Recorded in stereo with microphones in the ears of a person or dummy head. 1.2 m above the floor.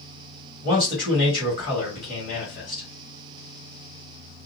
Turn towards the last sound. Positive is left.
turn(degrees=40)  # may be behind; listen again after turning